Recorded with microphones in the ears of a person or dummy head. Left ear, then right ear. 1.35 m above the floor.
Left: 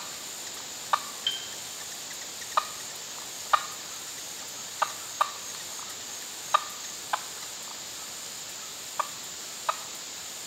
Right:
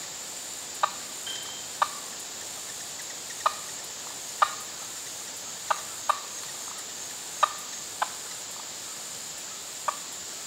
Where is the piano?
25° left (ahead or behind), 0.7 m.